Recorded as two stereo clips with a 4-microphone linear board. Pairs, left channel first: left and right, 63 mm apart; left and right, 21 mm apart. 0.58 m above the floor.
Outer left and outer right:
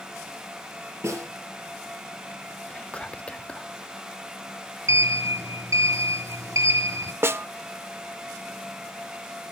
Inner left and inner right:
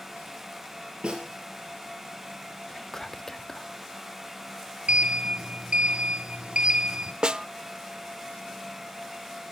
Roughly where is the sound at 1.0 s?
Right.